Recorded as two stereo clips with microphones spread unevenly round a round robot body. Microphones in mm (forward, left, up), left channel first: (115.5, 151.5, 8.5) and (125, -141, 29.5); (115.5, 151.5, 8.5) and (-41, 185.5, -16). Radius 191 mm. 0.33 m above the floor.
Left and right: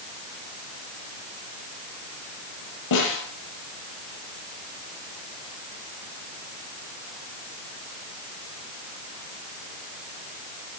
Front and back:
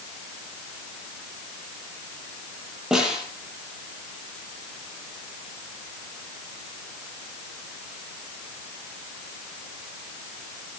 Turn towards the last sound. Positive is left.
turn(degrees=80)